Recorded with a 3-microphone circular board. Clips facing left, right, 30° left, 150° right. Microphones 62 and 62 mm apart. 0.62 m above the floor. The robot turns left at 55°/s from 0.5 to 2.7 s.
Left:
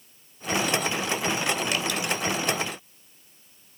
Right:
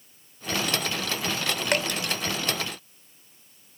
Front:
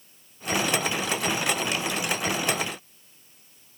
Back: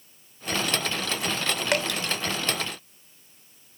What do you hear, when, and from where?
1.7 s dripping: 125° right, 1.6 m; by 2.0 s 140° right, 1.6 m